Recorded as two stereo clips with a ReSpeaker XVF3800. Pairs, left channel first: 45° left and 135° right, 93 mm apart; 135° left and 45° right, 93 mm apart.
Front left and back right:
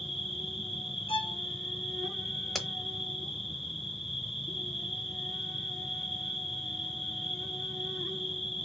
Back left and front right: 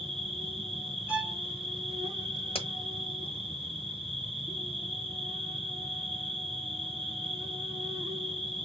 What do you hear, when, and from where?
0.0 s an insect: 45° right, 1.4 m
1.1 s a violin: 30° left, 1.3 m
2.5 s a crack: 135° left, 0.9 m